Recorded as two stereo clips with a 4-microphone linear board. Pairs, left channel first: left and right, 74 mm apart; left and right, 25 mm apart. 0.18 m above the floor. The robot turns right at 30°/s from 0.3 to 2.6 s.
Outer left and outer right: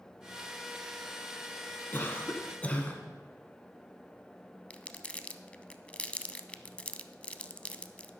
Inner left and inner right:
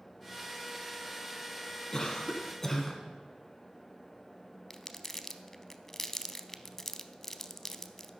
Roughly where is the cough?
Left.